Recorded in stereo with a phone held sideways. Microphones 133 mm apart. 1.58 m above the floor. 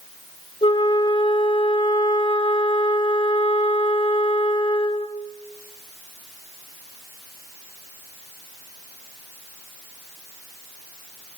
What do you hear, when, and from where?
0.6 s a flute: 40° left (ahead or behind), 2.5 m